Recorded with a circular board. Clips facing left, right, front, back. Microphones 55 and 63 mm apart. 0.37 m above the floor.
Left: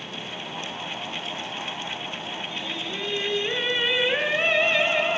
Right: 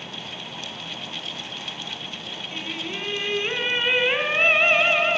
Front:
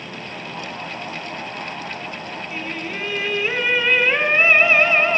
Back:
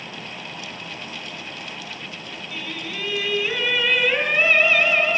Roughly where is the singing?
Ahead right.